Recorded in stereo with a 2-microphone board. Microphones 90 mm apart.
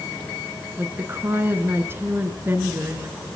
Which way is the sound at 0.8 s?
25° right (ahead or behind).